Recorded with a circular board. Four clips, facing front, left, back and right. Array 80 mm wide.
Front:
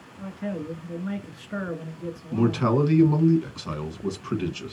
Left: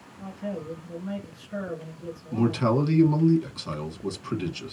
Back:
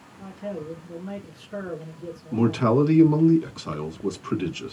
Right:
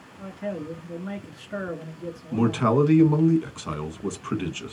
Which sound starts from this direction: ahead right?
A man speaking, at 0.2 s.